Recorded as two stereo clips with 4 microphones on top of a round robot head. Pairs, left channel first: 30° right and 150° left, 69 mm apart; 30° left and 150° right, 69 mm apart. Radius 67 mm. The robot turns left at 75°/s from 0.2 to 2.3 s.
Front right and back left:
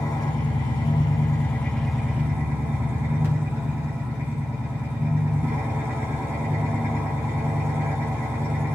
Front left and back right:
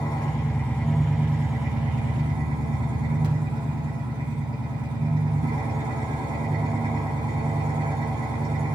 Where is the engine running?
5° left, 2.5 m; by 8.8 s 155° right, 2.5 m.